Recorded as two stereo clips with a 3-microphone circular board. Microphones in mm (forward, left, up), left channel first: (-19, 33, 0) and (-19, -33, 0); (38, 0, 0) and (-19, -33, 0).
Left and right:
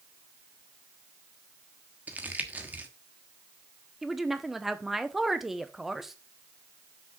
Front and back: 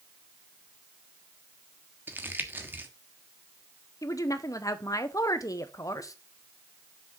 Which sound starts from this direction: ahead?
A woman speaking, at 4.0 s.